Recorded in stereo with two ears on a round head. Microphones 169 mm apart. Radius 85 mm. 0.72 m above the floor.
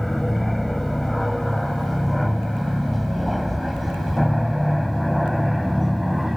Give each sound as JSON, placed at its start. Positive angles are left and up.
{"t": 0.0, "sound": "an aircraft", "side_deg": 0}